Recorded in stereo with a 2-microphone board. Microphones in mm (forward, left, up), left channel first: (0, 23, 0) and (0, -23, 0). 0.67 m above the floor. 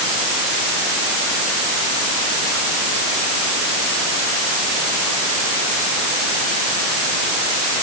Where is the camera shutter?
No camera shutter in this recording.